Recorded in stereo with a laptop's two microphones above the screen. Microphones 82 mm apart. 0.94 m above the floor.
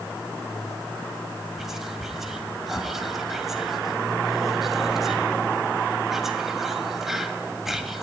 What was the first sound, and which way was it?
Whispering, 5° right (ahead or behind).